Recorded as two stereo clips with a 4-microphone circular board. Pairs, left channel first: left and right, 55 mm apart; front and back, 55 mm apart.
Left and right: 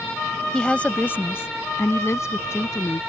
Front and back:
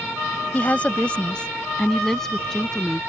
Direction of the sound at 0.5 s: 25° left.